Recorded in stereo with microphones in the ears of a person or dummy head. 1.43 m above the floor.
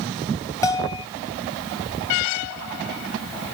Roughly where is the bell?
Centre.